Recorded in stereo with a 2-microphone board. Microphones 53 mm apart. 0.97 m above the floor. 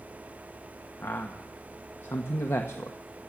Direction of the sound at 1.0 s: 55° left (ahead or behind).